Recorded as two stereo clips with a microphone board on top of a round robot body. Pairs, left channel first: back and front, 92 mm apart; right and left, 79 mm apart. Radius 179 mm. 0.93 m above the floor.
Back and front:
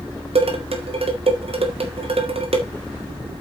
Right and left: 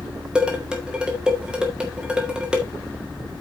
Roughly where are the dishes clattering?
Ahead.